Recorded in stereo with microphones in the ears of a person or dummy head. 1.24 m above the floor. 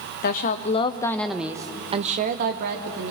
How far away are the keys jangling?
No keys jangling in this recording.